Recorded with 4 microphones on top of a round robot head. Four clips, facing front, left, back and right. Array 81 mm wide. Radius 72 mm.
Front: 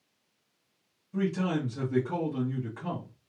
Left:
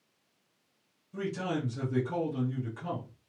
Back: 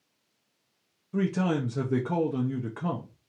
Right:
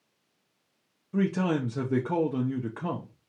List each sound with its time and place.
1.1 s a man speaking: 125° right, 0.7 m